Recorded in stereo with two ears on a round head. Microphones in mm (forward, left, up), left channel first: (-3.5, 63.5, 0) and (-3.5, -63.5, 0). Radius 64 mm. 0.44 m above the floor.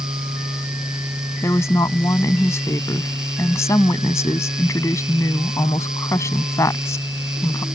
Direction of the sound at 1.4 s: 20° left (ahead or behind).